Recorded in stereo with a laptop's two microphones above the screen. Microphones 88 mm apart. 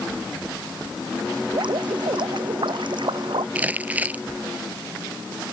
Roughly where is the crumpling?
Centre.